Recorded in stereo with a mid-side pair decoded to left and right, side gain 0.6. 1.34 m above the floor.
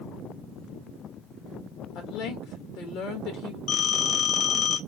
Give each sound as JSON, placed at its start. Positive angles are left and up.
{"t": 1.9, "sound": "a woman speaking", "azimuth_deg": 70, "distance_m": 1.6}
{"t": 3.7, "sound": "a phone ringing", "azimuth_deg": 55, "distance_m": 1.4}